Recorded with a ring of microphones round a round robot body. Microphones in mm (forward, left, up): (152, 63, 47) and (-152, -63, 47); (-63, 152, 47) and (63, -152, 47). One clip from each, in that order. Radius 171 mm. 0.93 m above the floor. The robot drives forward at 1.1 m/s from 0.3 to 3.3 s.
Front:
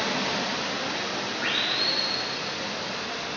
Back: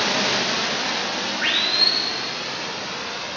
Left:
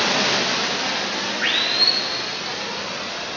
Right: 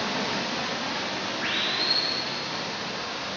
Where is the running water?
150° left, 0.9 m; by 3.4 s 175° left, 4 m.